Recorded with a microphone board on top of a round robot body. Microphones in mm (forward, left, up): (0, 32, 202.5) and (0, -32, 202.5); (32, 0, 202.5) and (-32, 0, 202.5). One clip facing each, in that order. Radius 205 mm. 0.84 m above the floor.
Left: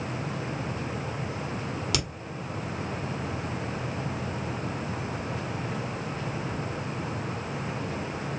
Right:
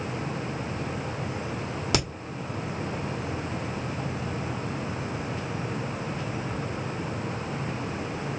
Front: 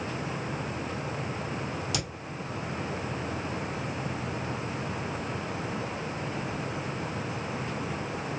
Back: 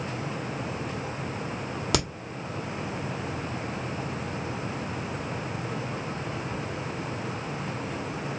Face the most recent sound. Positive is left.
turn(degrees=-145)